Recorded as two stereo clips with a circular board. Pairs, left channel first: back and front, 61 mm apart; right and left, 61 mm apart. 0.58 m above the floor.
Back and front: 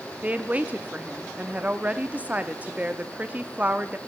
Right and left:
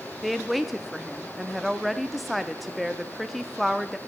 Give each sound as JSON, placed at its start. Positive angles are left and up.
{"t": 0.2, "sound": "a woman speaking", "azimuth_deg": 0, "distance_m": 0.7}